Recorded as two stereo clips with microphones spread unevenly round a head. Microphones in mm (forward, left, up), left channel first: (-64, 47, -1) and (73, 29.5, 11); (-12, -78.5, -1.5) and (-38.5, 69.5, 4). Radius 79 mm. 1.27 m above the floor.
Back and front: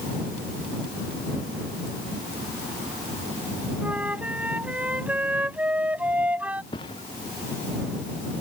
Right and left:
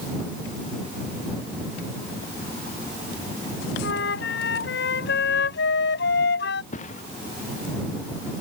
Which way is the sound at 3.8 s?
90° right.